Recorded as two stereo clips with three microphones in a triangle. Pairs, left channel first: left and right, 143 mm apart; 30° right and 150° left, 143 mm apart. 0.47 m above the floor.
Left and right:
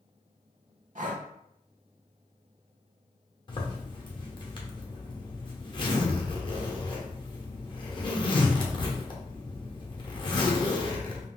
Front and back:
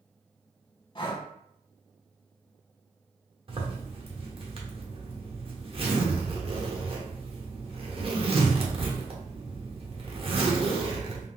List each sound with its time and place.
0.9 s breathing: 85° right, 0.5 m
3.5 s a zipper: 125° left, 0.7 m